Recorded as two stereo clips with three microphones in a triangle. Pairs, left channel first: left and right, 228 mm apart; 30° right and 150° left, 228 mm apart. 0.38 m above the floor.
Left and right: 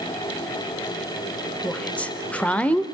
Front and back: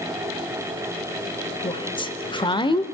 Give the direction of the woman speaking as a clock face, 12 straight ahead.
12 o'clock.